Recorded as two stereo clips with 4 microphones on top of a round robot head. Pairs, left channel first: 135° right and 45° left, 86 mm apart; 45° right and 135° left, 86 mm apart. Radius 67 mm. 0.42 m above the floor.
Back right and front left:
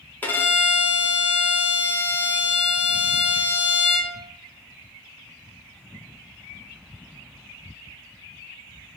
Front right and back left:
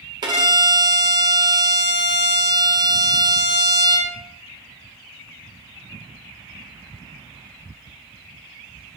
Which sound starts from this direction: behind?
A violin, at 0.2 s.